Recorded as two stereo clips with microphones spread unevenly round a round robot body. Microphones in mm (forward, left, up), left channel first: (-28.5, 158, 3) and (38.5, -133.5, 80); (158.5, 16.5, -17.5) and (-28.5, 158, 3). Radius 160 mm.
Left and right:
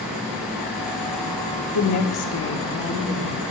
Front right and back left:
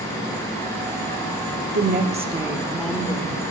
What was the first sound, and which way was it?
A woman speaking, 105° left.